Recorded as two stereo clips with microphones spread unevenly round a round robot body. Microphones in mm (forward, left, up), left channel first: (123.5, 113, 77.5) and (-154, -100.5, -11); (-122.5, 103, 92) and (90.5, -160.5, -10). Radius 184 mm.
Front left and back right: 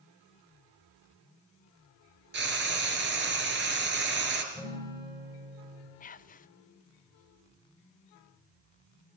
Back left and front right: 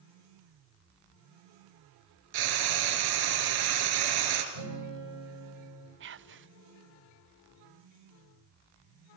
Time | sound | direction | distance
2.3 | frying | 75° right | 3 m
4.5 | a guitar | 60° right | 9.5 m
6.0 | whispering | 40° right | 0.7 m